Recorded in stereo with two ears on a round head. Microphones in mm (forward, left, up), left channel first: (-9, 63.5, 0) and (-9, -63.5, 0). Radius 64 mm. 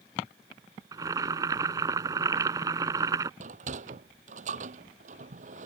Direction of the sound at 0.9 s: 25° right (ahead or behind).